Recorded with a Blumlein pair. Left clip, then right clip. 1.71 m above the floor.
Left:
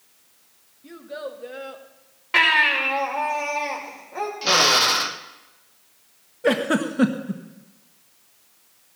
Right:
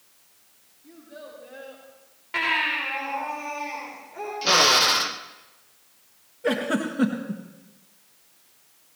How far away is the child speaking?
About 2.5 m.